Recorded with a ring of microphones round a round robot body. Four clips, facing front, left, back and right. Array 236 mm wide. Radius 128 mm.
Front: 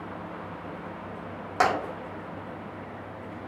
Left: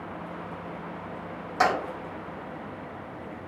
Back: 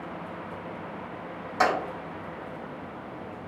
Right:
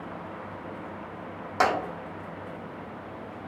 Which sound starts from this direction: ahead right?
Tapping, at 1.6 s.